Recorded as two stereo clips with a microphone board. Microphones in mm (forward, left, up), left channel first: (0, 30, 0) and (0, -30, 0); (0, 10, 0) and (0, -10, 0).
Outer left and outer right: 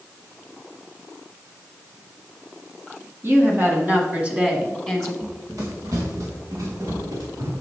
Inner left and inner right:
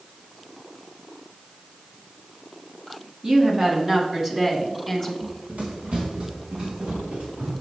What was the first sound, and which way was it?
A woman speaking, 40° right (ahead or behind).